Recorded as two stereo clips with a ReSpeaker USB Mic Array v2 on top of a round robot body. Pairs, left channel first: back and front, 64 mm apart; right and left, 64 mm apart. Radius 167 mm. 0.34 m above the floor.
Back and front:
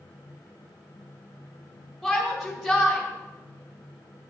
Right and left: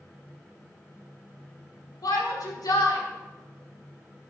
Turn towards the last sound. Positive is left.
turn(degrees=-85)